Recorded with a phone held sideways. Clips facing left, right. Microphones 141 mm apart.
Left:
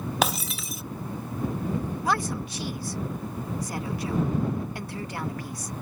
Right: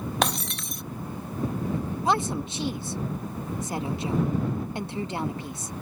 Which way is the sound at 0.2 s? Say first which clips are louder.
Left 1 dB; 5° left (ahead or behind).